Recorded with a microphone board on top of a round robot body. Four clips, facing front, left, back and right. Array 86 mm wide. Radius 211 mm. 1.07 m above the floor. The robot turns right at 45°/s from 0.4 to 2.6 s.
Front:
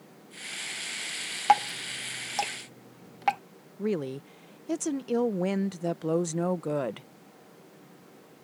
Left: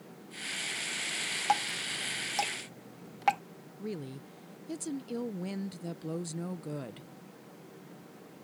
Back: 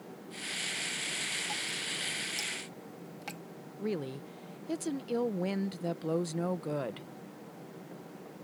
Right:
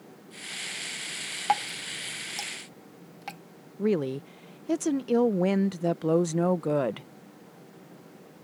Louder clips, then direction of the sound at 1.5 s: Right 3 dB, front 17 dB; 15° right.